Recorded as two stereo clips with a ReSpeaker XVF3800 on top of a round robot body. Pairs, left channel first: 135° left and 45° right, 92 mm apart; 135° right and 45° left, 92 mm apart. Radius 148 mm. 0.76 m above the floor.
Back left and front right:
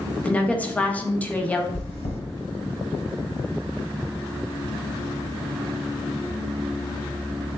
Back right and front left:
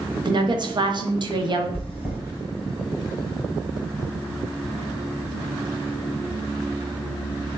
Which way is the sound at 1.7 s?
140° left.